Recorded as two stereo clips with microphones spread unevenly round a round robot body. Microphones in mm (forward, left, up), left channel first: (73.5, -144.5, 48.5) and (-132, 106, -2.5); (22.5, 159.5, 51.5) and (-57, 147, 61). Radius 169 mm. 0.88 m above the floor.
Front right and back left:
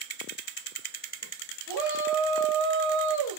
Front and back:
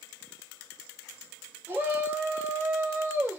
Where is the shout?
125° left, 1.6 m.